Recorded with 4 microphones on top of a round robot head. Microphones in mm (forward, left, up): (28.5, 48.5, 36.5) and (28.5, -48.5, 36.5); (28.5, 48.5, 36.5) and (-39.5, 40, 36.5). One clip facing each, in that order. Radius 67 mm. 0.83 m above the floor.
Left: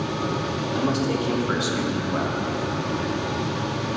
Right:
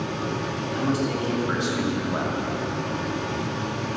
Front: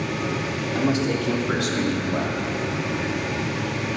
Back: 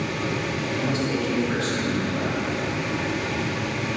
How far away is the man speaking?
About 2.5 m.